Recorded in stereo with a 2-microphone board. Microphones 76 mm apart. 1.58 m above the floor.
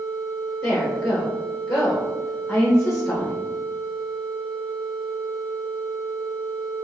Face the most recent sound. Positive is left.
turn(degrees=20)  # may be behind; listen again after turning